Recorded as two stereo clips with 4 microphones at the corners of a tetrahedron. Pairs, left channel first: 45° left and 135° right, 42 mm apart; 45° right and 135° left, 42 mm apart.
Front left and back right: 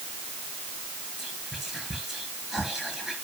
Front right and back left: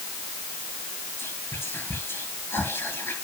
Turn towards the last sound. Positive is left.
turn(degrees=-55)